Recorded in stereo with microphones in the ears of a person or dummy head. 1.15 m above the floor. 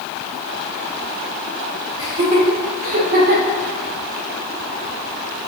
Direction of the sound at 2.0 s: 30° right (ahead or behind).